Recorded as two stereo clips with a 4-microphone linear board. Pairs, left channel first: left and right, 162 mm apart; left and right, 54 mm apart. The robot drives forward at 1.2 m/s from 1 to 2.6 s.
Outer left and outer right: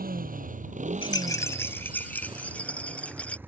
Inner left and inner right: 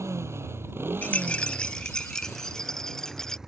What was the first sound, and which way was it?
A motorcycle, 65° right (ahead or behind).